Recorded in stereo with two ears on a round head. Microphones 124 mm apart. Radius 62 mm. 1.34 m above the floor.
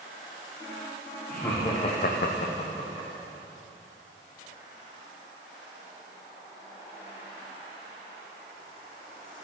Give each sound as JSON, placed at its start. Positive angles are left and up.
{"t": 1.3, "sound": "laughter", "side_deg": 15, "distance_m": 1.2}